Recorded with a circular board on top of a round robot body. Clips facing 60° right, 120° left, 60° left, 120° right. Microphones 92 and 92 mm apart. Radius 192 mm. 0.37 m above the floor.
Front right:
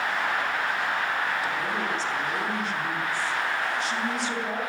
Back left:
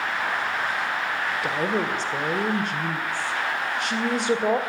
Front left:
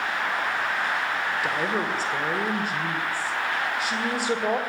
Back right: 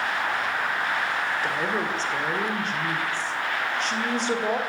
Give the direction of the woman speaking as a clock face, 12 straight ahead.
7 o'clock.